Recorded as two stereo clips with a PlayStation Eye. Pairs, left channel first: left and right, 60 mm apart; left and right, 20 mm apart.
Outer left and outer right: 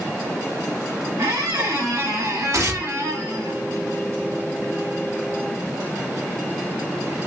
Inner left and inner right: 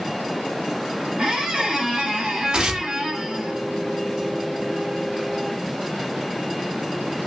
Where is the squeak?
70° right (ahead or behind), 1.4 m.